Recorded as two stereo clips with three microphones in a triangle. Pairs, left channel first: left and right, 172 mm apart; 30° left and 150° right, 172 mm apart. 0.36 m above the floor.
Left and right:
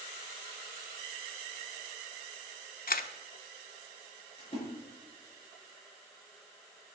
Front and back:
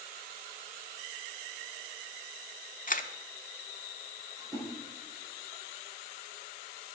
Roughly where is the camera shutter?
Ahead left.